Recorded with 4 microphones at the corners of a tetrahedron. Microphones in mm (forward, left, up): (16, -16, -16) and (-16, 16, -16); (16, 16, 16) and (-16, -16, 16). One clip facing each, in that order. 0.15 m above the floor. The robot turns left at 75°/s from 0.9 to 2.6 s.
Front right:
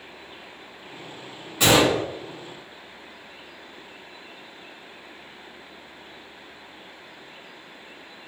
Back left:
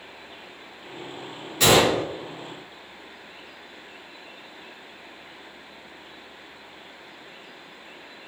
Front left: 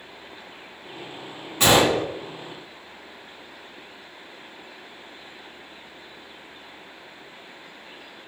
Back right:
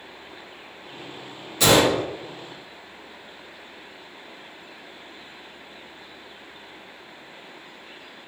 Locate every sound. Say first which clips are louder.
1.6 s a gunshot: even, even; 15° left, 1.5 m; by 2.0 s 15° right, 1.5 m